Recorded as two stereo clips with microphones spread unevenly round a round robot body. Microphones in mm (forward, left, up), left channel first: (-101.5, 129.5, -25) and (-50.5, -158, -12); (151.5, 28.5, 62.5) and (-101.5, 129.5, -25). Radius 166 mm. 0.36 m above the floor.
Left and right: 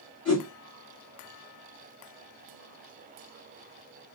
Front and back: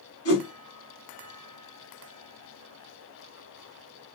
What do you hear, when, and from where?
0.2 s a whoosh: 15° left, 1.9 m